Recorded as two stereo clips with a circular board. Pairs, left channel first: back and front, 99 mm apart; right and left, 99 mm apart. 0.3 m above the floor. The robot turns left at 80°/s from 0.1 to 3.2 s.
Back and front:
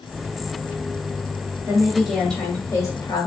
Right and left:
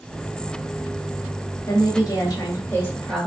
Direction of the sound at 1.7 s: 50° right.